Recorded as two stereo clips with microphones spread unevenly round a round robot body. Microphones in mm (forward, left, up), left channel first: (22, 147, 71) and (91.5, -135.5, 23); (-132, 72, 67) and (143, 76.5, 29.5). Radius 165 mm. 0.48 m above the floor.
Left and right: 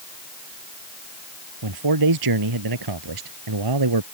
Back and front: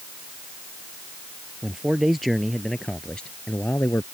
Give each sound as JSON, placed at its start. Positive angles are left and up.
{"t": 1.6, "sound": "a man speaking", "azimuth_deg": -90}